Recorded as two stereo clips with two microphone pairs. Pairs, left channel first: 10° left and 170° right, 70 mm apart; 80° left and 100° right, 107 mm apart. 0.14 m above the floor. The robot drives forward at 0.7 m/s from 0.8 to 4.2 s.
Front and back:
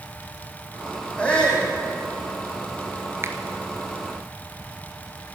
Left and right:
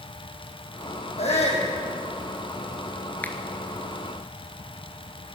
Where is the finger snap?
150° left, 1.4 m.